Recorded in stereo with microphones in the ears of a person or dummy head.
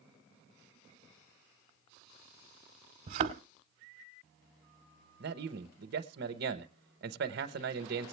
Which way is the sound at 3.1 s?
40° right (ahead or behind).